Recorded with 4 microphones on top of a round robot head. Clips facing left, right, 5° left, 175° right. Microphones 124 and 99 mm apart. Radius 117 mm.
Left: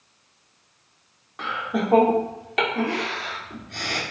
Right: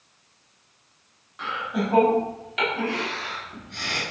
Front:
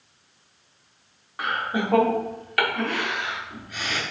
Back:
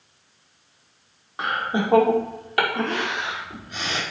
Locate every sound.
1.4 s laughter: 120° left, 2.0 m